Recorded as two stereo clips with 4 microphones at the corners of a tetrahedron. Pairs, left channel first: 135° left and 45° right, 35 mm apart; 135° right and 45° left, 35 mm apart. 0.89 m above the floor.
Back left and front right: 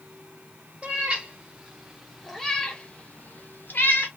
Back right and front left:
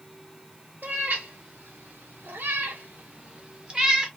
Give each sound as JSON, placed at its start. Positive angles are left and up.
{"t": 0.8, "sound": "a cat meowing", "azimuth_deg": 15, "distance_m": 1.7}